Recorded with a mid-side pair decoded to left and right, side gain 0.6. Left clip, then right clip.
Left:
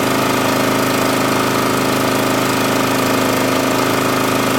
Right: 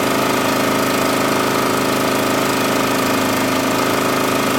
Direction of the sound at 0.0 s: Straight ahead.